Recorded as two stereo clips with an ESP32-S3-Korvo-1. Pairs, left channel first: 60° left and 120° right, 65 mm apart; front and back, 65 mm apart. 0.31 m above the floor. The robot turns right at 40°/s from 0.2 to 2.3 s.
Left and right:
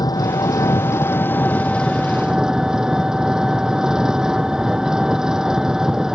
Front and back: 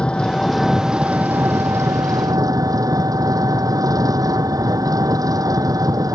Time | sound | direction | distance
0.0 | an engine running | 75° left | ?